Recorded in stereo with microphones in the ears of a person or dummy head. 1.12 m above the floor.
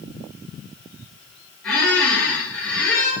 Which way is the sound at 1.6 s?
10° left (ahead or behind).